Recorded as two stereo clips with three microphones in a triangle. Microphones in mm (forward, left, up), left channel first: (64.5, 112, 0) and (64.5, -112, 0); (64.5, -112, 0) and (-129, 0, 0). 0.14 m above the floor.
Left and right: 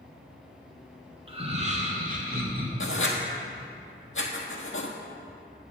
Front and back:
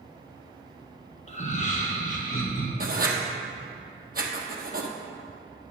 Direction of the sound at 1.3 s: 50° right.